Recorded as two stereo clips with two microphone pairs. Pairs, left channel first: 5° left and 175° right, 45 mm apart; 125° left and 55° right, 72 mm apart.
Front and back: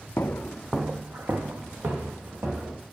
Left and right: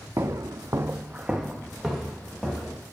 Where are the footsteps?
20° right, 0.8 m; by 2.8 s 150° right, 3.5 m.